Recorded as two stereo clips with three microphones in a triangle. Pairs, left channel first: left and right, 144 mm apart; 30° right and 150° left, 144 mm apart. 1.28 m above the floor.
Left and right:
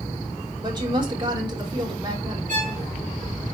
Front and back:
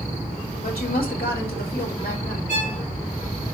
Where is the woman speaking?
30° right, 3 m.